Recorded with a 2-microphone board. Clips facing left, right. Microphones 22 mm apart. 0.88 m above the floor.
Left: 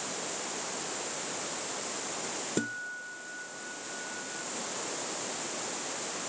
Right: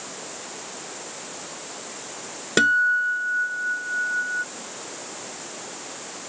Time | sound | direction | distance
2.6 | a guitar | 55° right (ahead or behind) | ?